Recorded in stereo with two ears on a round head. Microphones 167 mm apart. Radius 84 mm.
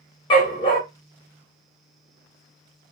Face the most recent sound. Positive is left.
turn(degrees=25)  # may be behind; listen again after turning